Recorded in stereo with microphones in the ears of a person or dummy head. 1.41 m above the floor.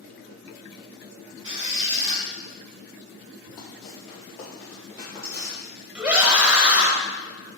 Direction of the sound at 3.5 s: 45° left (ahead or behind).